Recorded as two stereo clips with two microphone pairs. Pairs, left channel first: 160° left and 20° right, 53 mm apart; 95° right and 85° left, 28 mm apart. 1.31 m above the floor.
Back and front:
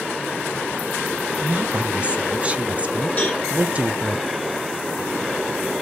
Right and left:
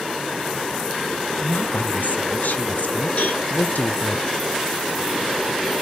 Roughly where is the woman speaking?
Right.